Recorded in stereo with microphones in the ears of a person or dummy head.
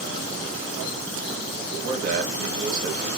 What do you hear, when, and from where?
1.6 s a man speaking: 45° right (ahead or behind), 1.7 m